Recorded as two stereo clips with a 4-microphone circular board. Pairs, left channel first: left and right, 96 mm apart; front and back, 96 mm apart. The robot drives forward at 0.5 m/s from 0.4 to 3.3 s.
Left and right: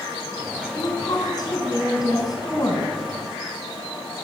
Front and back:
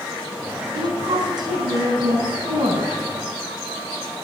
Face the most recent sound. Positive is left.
turn(degrees=145)